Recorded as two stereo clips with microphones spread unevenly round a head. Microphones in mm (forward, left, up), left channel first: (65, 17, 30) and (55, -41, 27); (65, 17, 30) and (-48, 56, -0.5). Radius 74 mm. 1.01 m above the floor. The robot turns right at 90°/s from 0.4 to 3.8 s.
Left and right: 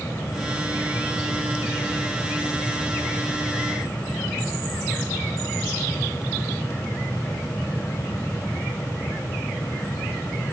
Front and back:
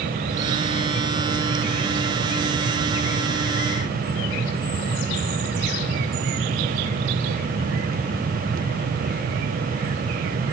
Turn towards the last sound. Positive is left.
No sound to turn to.